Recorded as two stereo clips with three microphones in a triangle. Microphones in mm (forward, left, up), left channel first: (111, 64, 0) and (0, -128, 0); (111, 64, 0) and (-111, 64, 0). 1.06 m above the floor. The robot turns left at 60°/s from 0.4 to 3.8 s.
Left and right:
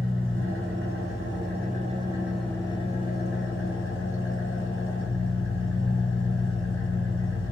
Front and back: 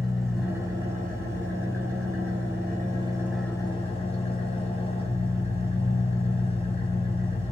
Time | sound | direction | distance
0.0 | an engine running | 90° right | 0.8 m